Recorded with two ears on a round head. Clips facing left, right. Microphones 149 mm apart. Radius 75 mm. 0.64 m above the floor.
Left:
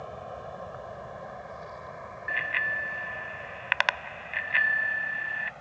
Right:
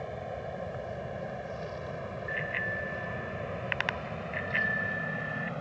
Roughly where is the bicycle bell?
Left.